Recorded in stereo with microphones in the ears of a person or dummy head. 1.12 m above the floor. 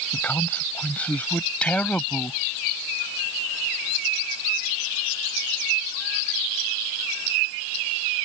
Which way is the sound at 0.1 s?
15° left (ahead or behind).